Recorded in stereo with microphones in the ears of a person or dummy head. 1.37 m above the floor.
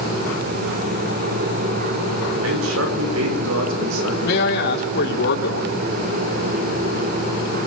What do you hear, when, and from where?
2.4 s a man speaking: 85° right, 5.5 m
4.2 s a man speaking: 75° left (ahead or behind), 4 m